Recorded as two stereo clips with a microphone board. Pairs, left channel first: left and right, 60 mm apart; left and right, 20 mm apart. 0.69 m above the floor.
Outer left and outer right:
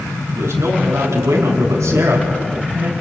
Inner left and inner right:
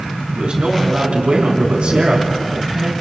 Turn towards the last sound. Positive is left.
turn(degrees=-75)  # may be behind; listen again after turning